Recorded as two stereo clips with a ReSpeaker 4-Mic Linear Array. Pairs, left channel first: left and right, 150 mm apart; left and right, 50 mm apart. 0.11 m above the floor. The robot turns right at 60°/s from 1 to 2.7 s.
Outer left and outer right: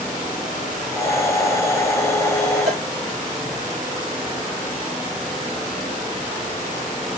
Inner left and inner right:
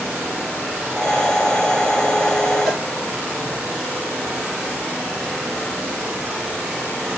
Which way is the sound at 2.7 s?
Centre (ahead or behind).